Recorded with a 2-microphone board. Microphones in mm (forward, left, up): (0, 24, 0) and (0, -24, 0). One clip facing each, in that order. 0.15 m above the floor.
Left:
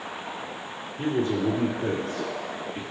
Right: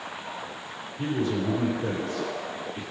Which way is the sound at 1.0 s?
45° left (ahead or behind).